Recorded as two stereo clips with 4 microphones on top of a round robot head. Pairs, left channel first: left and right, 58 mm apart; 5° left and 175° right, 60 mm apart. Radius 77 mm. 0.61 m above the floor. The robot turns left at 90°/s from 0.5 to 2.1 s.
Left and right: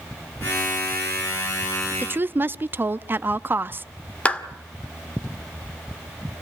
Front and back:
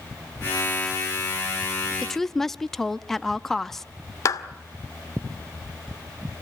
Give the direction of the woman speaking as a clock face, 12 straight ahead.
2 o'clock.